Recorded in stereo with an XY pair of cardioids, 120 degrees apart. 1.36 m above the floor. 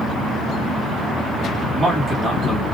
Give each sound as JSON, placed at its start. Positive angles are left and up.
{"t": 1.7, "sound": "a man speaking", "azimuth_deg": -25, "distance_m": 2.0}